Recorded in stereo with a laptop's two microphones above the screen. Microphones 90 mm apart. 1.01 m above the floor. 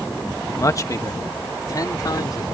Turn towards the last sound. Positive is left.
turn(degrees=45)  # may be behind; listen again after turning